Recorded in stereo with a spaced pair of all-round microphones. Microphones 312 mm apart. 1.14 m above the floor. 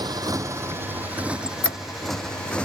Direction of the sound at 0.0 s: 15° right (ahead or behind).